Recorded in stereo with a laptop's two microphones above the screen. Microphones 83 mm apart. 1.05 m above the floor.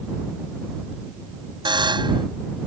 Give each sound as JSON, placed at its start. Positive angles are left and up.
{"t": 1.6, "sound": "a buzzer", "side_deg": -70}